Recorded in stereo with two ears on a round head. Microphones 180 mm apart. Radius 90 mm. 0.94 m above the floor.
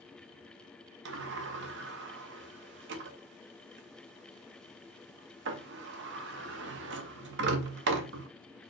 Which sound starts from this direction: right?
A sliding door, at 1.1 s.